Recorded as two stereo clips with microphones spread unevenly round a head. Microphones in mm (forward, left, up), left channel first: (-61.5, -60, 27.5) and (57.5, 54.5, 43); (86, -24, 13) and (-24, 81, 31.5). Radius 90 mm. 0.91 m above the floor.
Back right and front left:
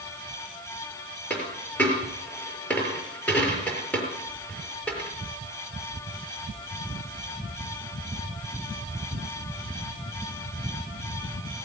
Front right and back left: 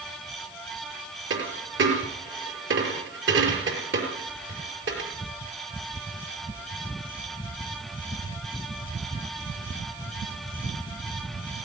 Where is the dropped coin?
140° left, 5.5 m.